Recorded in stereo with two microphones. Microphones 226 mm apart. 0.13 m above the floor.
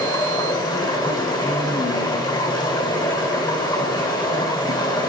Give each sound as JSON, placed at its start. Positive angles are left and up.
{"t": 0.0, "sound": "running water", "side_deg": 20, "distance_m": 1.4}